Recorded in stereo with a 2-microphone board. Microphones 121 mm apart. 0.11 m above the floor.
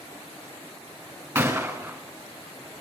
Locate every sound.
1.4 s a gunshot: 20° right (ahead or behind), 5 m